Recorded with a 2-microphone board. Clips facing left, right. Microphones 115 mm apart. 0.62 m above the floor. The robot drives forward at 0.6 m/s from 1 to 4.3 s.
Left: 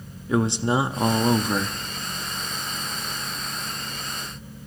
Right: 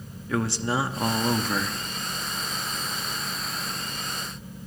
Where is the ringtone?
No ringtone in this recording.